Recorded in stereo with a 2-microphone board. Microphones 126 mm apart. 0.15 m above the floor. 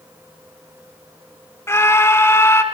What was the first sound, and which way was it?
A scream, 20° left (ahead or behind).